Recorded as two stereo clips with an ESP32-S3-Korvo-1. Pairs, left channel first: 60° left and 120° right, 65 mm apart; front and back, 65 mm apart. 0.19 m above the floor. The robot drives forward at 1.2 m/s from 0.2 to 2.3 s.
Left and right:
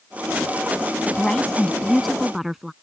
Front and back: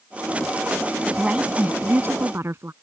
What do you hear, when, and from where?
1.1 s a woman speaking: 100° left; by 2.7 s 155° left